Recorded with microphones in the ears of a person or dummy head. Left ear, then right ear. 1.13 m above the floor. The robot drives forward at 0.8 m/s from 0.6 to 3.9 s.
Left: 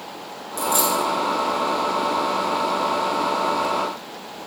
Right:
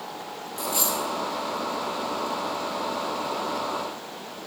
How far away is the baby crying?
I don't hear a baby crying.